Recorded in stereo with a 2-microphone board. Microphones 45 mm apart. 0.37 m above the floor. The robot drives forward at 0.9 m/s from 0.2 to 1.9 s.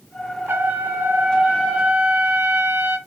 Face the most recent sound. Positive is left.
turn(degrees=-25)  # may be behind; listen again after turning